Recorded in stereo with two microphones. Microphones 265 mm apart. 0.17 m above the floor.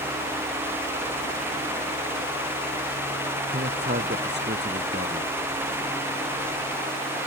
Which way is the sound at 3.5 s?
40° right (ahead or behind).